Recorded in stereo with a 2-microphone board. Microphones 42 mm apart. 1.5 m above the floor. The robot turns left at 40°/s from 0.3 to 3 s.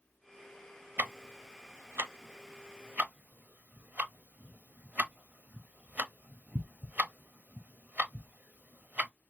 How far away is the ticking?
About 0.7 m.